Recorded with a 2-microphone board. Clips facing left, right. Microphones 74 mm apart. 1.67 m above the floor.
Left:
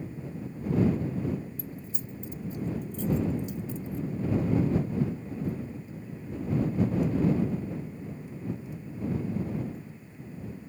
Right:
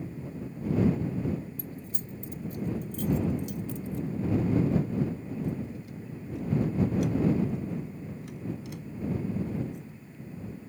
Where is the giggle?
I don't hear a giggle.